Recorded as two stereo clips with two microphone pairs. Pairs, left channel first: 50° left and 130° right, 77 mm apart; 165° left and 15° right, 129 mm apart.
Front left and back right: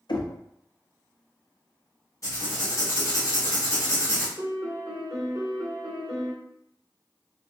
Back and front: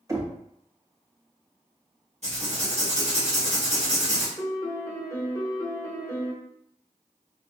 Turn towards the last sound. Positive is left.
turn(degrees=-135)